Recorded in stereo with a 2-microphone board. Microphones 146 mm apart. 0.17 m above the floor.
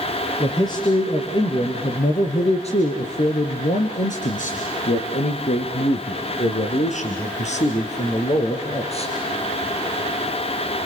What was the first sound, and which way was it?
A man speaking, 25° left (ahead or behind).